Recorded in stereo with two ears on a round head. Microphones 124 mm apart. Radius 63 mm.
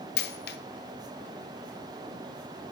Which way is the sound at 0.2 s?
85° left.